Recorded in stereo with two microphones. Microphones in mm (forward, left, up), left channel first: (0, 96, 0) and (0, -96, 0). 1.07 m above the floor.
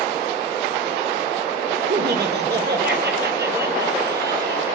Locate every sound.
1.9 s laughter: 60° right (ahead or behind), 2.5 m